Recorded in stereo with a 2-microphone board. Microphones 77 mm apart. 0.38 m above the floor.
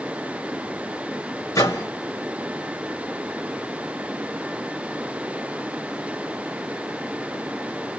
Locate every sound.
1.6 s a microwave: 50° left (ahead or behind), 1.3 m